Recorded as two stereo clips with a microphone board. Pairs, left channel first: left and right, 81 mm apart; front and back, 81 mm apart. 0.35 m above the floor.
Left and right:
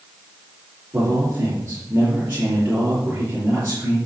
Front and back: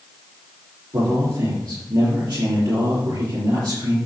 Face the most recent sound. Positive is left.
turn(degrees=-155)